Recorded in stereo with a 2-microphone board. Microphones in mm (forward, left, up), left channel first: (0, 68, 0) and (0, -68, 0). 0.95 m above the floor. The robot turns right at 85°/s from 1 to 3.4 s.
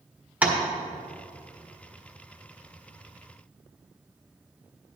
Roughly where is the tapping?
Centre.